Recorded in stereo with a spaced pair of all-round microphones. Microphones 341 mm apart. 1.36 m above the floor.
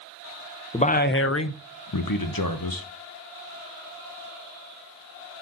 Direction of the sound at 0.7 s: 15° left (ahead or behind).